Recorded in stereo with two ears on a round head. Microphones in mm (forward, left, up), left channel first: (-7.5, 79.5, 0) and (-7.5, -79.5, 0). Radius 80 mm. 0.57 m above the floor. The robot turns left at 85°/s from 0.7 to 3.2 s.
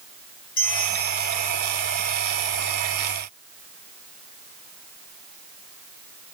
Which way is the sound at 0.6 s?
85° left.